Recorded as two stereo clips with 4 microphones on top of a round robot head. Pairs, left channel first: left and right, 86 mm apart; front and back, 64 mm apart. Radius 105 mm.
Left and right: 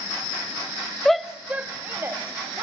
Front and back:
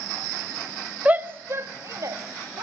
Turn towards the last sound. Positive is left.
turn(degrees=-150)